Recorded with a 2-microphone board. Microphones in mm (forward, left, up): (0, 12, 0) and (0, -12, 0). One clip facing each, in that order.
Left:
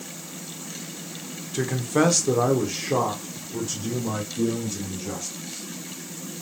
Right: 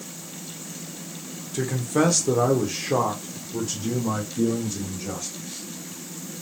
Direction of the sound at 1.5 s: 15° left (ahead or behind).